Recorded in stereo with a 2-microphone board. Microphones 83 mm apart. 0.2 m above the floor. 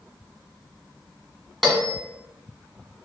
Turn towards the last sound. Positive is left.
turn(degrees=0)  # may be behind; listen again after turning